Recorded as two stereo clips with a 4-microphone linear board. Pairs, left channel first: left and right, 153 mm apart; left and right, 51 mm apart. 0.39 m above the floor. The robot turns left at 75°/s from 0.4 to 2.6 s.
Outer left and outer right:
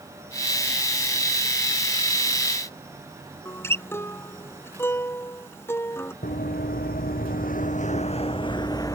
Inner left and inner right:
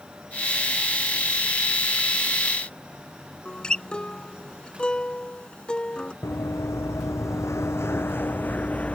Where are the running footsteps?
70° left (ahead or behind); by 9.0 s 20° left (ahead or behind).